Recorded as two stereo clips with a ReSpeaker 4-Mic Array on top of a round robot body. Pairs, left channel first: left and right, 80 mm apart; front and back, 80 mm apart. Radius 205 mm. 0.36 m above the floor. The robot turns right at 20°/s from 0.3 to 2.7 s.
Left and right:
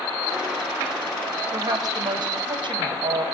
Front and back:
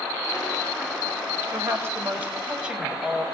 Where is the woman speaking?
130° right, 2.5 m; by 3.2 s 105° right, 2.5 m.